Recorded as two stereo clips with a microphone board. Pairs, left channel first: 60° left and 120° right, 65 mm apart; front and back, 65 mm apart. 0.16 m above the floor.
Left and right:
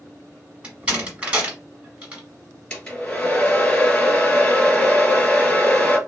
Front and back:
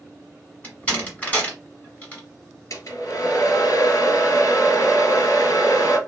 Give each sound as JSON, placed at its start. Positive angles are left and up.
{"t": 0.6, "sound": "a door slam", "azimuth_deg": -60, "distance_m": 1.5}
{"t": 2.7, "sound": "a hair dryer", "azimuth_deg": -10, "distance_m": 1.5}